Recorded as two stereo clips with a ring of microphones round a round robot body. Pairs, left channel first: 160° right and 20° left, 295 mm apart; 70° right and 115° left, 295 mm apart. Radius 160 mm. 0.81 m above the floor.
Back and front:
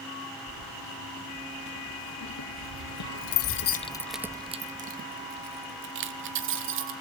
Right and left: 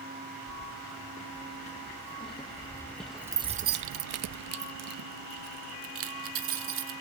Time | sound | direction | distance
0.5 | keys jangling | 130° right | 2 m